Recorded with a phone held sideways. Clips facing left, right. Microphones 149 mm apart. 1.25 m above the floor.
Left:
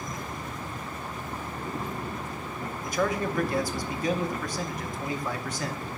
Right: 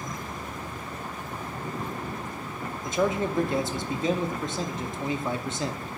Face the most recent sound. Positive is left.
turn(degrees=-25)  # may be behind; listen again after turning